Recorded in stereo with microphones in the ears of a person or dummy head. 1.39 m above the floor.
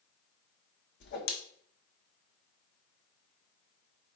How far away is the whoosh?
About 0.8 m.